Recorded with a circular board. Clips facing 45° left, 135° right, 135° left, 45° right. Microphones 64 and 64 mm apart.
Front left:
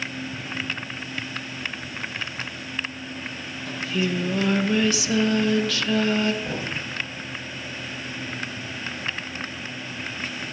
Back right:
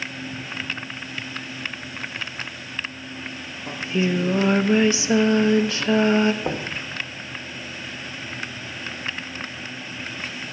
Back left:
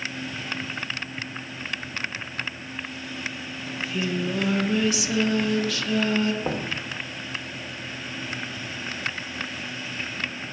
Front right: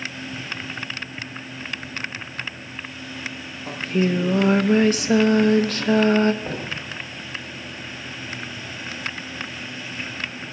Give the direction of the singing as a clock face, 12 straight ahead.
3 o'clock.